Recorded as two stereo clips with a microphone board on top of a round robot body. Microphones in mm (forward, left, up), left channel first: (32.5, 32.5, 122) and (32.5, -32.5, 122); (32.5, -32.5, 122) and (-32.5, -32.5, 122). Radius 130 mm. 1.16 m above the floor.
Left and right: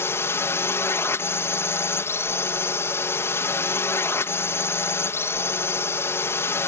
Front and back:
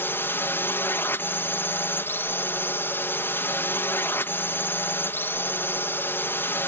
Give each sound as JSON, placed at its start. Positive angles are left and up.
{"t": 0.0, "sound": "a drone", "azimuth_deg": 50}